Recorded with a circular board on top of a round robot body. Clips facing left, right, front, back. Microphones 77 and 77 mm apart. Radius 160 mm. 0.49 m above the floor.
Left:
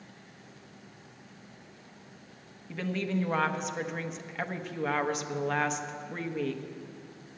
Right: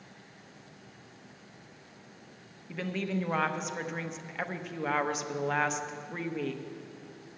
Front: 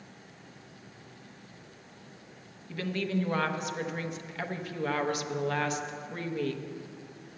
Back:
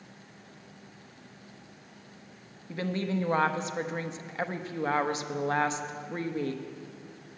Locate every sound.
2.7 s a woman speaking: straight behind, 0.9 m